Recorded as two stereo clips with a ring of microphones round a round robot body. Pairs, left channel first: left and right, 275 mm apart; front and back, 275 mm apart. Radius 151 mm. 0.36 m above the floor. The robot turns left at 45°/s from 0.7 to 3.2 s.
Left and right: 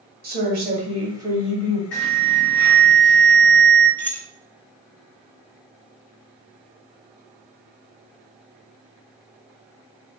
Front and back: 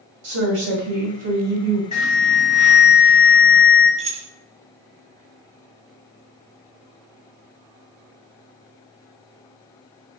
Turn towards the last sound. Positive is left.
turn(degrees=165)